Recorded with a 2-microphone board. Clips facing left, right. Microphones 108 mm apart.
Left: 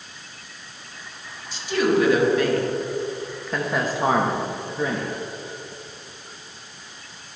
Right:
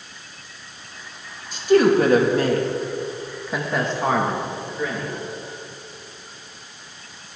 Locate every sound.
1.5 s a woman speaking: 50° right (ahead or behind), 1.5 m; by 5.1 s 35° left (ahead or behind), 1.2 m